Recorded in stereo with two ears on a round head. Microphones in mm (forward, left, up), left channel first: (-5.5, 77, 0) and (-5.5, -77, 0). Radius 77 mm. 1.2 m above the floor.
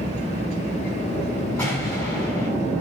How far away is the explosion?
About 7.5 m.